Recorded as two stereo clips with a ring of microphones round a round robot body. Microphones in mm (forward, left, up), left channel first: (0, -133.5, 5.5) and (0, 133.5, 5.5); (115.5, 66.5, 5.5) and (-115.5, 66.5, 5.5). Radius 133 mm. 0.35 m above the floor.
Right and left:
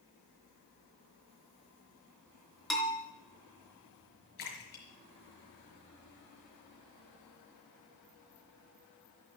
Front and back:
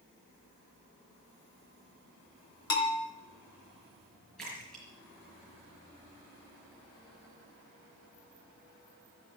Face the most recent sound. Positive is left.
turn(degrees=-90)